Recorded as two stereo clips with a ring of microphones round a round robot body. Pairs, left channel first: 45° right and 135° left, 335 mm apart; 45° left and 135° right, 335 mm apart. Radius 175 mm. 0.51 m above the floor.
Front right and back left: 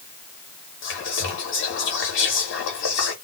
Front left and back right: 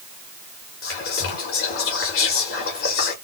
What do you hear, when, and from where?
0.8 s whispering: straight ahead, 1.0 m